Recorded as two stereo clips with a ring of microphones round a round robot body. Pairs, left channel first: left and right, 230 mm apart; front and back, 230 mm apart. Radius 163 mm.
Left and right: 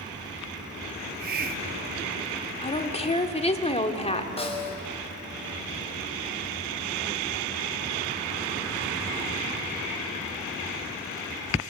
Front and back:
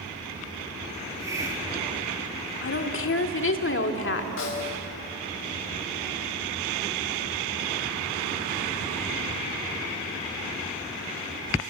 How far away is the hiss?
About 0.9 m.